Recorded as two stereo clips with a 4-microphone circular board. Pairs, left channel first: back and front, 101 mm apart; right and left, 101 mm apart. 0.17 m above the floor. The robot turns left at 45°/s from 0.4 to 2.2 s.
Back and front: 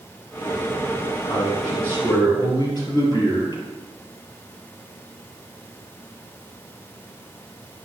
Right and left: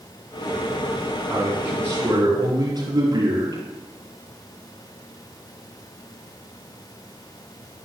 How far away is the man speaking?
About 4 m.